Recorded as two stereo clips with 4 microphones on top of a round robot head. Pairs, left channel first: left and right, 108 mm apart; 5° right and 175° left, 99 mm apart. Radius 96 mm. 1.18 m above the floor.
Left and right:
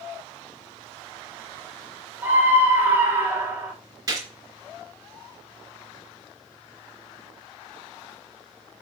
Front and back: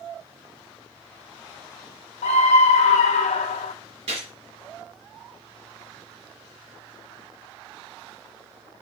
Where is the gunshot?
145° right, 3 m.